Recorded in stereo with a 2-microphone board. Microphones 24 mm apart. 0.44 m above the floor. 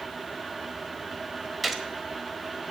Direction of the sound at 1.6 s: 5° right (ahead or behind).